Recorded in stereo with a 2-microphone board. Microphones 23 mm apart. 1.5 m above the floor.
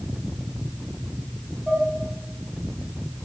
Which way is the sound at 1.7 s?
15° right (ahead or behind).